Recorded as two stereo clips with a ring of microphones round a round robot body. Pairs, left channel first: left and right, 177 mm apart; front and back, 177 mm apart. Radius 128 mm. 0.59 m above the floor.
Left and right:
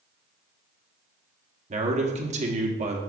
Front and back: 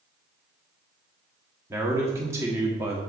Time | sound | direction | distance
1.7 | a man speaking | 110° right | 0.9 m